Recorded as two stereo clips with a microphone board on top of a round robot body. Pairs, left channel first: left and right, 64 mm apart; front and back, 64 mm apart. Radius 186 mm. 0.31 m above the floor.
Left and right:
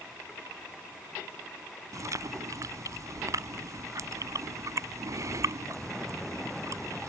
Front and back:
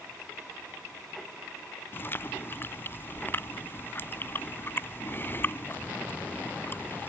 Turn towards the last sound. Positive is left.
turn(degrees=-55)